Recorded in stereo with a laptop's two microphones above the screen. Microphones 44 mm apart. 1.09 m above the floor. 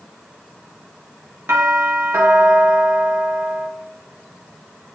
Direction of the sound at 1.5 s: 70° right (ahead or behind).